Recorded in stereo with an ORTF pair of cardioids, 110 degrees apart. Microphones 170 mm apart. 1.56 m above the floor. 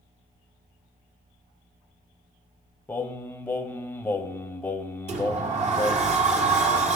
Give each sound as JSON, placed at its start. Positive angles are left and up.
{"t": 2.9, "sound": "singing", "azimuth_deg": 10, "distance_m": 1.1}
{"t": 5.1, "sound": "a sliding door", "azimuth_deg": -40, "distance_m": 1.8}